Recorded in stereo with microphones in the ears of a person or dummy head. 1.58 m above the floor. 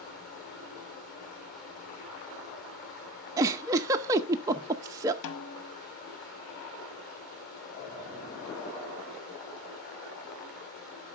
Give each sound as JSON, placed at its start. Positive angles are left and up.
{"t": 0.0, "sound": "running water", "side_deg": 50, "distance_m": 4.0}
{"t": 3.4, "sound": "a giggle", "side_deg": -15, "distance_m": 0.6}
{"t": 5.2, "sound": "a snare drum", "side_deg": 70, "distance_m": 0.8}